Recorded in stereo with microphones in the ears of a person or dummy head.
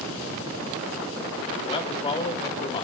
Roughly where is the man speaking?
Left.